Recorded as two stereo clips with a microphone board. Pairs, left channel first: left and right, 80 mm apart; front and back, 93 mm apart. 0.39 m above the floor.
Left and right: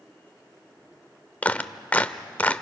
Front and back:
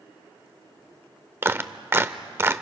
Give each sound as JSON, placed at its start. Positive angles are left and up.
{"t": 1.4, "sound": "a clap", "azimuth_deg": 145, "distance_m": 0.7}